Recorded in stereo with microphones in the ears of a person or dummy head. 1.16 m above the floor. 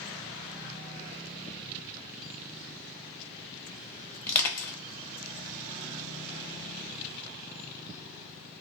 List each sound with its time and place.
4.3 s crushing: 15° left (ahead or behind), 0.6 m